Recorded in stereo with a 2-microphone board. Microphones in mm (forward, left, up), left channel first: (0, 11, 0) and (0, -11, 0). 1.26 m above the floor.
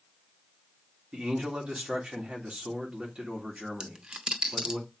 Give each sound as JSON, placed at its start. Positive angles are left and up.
{"t": 1.1, "sound": "a man speaking", "side_deg": -65, "distance_m": 3.0}
{"t": 3.8, "sound": "a dropped coin", "side_deg": -50, "distance_m": 0.9}